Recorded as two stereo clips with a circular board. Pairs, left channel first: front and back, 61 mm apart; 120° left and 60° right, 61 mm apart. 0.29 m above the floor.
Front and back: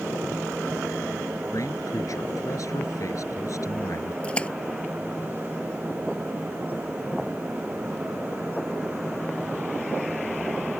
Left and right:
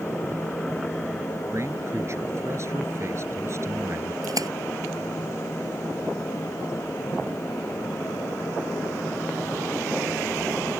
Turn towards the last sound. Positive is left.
turn(degrees=-70)